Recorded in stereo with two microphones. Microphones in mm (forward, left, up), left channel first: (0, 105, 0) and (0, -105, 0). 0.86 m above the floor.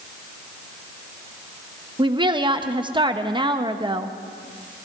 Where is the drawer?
I don't hear a drawer.